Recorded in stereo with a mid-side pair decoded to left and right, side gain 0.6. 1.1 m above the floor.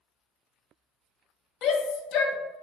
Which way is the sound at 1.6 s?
60° left.